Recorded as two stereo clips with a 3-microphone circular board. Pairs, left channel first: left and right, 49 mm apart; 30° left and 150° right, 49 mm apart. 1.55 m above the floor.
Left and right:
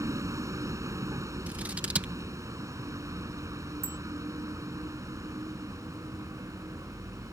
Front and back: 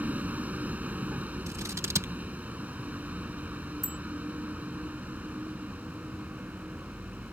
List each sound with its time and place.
0.0 s a vehicle: 95° right
1.5 s scissors: 150° right
3.8 s a bicycle bell: 55° right